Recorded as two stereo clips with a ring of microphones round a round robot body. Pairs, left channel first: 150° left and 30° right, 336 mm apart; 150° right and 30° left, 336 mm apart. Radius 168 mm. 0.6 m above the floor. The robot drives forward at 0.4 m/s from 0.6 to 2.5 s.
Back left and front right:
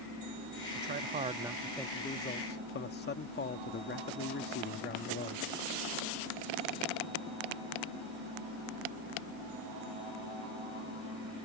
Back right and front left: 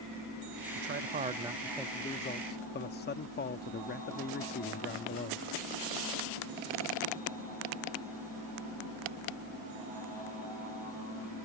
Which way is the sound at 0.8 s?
Straight ahead.